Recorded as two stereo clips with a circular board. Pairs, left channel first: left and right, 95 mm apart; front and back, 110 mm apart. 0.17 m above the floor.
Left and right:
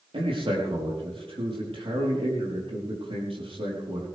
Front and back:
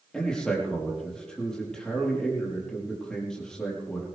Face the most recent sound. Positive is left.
turn(degrees=-85)